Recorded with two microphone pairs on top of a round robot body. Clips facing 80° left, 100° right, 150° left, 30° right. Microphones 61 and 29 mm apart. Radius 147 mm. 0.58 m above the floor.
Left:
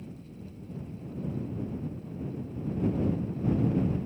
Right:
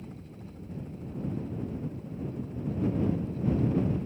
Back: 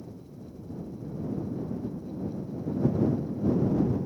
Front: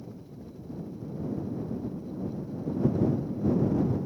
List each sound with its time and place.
0.0 s a helicopter: 105° right; by 4.1 s 85° right